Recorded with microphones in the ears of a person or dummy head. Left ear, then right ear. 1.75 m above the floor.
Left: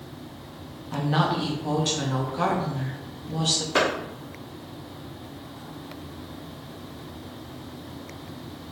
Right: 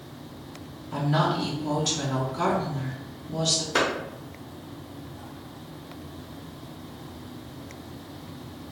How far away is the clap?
About 1.0 m.